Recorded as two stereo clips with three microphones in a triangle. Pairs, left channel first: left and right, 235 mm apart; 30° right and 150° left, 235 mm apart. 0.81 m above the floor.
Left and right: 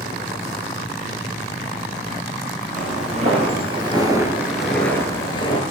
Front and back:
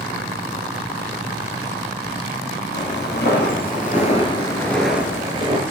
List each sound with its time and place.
2.8 s footsteps: 40° right, 1.4 m; by 5.6 s 125° left, 0.9 m